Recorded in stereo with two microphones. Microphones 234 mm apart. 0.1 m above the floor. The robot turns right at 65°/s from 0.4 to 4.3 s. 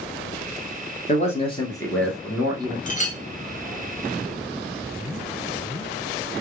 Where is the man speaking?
110° left, 1.3 m; by 2.8 s 140° right, 1.3 m.